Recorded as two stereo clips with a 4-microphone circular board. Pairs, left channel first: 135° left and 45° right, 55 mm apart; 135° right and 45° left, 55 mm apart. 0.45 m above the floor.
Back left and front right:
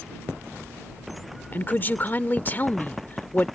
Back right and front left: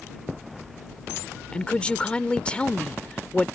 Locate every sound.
1.5 s a woman speaking: 165° left